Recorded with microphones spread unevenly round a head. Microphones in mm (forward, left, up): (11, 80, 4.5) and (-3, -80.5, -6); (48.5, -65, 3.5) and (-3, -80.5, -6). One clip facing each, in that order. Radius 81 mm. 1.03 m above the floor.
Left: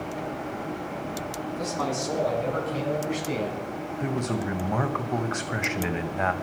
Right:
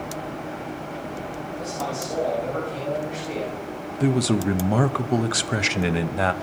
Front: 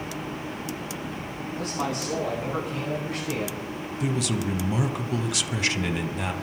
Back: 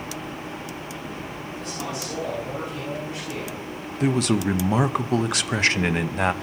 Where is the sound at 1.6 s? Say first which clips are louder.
Left 1 dB, front 4 dB; 70° left, 9 m.